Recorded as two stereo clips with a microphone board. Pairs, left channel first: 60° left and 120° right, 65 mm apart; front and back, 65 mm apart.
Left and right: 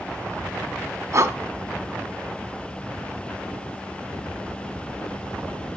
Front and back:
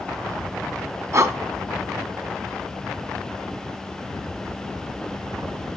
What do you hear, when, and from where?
1.1 s breathing: 150° right, 0.6 m